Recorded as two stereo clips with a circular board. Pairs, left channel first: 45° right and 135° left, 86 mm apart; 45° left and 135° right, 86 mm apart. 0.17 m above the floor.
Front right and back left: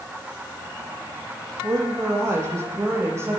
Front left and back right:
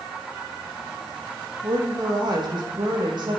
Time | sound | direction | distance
1.6 | a woman speaking | 170° right | 6 m